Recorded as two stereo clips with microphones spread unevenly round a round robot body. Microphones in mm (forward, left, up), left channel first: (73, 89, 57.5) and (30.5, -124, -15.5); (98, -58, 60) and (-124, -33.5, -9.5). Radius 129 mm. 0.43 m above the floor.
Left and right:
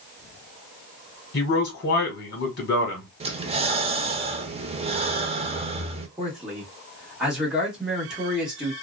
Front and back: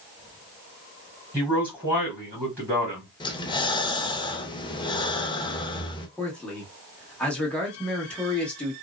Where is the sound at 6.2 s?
125° right, 1.1 m.